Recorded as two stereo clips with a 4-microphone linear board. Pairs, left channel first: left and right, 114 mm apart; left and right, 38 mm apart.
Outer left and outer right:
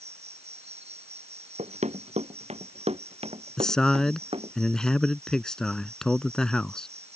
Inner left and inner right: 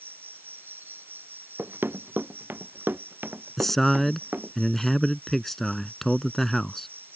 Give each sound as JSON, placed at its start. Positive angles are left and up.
{"t": 0.0, "sound": "an insect", "side_deg": -65}
{"t": 1.6, "sound": "running footsteps", "side_deg": -85}
{"t": 3.6, "sound": "a man speaking", "side_deg": 5}